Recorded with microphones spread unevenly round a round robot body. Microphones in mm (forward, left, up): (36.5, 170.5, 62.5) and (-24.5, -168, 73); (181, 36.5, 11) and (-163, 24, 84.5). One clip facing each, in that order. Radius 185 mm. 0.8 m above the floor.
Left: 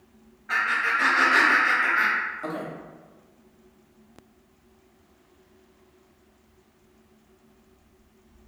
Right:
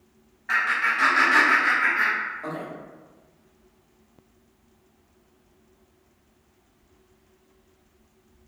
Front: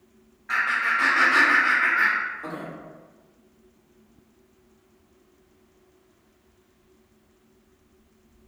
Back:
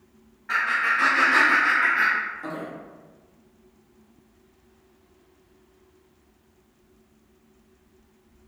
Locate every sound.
0.5 s laughter: 90° right, 1.2 m; by 2.7 s 95° left, 1.1 m